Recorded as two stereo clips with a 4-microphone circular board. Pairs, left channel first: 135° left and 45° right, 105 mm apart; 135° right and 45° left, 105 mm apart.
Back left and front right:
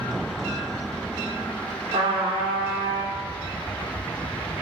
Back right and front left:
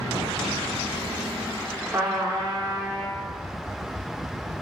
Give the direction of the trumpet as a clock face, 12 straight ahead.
12 o'clock.